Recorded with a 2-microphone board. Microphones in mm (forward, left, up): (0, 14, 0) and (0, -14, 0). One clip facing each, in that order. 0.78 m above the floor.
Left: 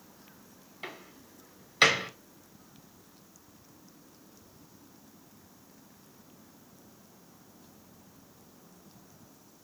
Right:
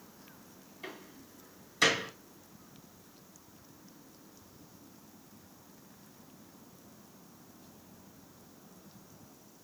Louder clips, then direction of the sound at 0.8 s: Left 3 dB; 45° left (ahead or behind).